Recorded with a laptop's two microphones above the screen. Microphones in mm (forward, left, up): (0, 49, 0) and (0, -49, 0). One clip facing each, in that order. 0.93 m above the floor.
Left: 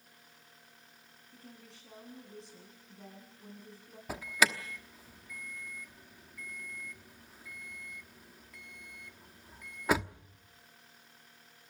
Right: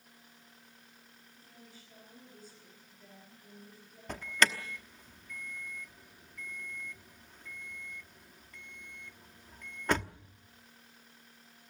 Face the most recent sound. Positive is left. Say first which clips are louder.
# even
turn(degrees=5)  # may be behind; listen again after turning